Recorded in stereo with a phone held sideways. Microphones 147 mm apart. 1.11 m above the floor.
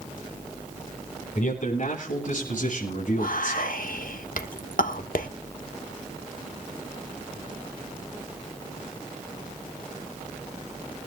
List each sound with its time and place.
1.4 s a man speaking: 60° left (ahead or behind), 9.5 m; by 3.8 s 65° left (ahead or behind), 7 m
3.1 s whispering: 70° left (ahead or behind), 1.3 m